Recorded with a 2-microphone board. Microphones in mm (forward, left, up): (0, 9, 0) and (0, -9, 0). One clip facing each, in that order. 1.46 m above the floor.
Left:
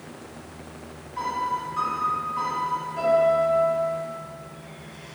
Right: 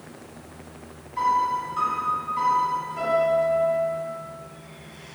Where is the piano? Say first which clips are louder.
Right 5 dB; 20° left (ahead or behind), 1.1 m.